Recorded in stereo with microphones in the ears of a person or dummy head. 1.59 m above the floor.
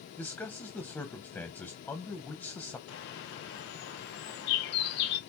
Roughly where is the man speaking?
Centre.